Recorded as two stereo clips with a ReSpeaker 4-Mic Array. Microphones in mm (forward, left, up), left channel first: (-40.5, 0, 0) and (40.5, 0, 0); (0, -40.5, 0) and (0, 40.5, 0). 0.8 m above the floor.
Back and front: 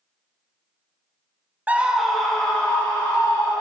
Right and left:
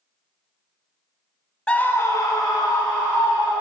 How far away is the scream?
About 0.5 m.